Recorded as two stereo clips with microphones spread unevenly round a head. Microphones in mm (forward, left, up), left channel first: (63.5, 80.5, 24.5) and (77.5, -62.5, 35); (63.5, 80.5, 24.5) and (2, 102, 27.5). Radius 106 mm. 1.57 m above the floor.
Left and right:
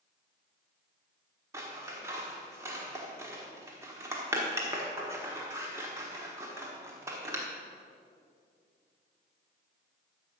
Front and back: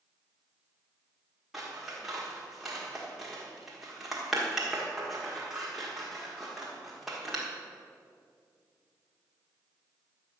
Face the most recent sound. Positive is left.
turn(degrees=-125)